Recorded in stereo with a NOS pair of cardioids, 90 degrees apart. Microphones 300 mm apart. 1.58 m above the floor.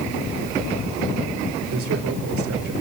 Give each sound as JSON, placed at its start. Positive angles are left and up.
{"t": 1.7, "sound": "a man speaking", "azimuth_deg": -65, "distance_m": 5.0}